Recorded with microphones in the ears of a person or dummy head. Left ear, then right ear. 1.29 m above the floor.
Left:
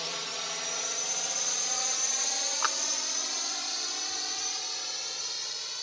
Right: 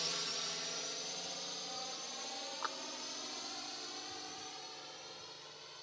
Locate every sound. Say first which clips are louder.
0.0 s a drone: left 4 dB; 25° left (ahead or behind); by 5.8 s 75° left (ahead or behind)
2.6 s a clap: left 11 dB; 70° left (ahead or behind)